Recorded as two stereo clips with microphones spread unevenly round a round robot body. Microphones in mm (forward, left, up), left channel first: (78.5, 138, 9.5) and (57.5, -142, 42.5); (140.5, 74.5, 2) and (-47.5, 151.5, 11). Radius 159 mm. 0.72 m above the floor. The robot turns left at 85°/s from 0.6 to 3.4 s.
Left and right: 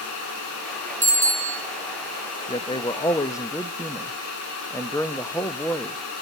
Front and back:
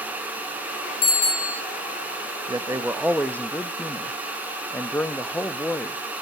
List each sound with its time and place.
1.0 s a bicycle bell: 25° right, 4.5 m; by 1.6 s 80° right, 4.5 m
2.5 s a man speaking: 120° left, 0.6 m; by 6.0 s 40° left, 0.6 m